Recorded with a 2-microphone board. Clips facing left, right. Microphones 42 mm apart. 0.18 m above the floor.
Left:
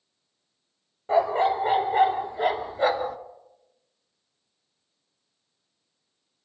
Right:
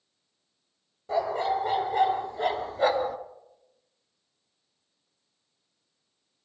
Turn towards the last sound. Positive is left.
turn(degrees=0)  # may be behind; listen again after turning